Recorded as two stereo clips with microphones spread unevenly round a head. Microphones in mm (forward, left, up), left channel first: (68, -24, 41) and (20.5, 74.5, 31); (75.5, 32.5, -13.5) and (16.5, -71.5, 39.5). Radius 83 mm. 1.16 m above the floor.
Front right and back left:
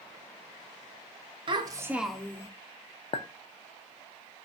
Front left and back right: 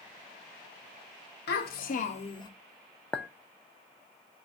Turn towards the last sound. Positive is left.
turn(degrees=-30)